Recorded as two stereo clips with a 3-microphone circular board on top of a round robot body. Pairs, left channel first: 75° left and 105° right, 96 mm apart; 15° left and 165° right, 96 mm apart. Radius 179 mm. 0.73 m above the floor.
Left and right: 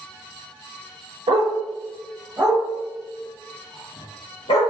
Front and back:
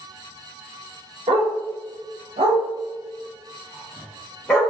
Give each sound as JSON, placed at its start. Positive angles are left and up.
{"t": 1.3, "sound": "a dog barking", "azimuth_deg": -140, "distance_m": 1.0}